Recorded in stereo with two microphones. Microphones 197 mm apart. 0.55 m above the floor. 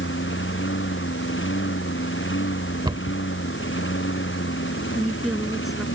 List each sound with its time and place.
0.0 s a lawn mower: 80° left
2.9 s a cupboard door: 25° right (ahead or behind)
4.9 s a woman speaking: centre (ahead or behind)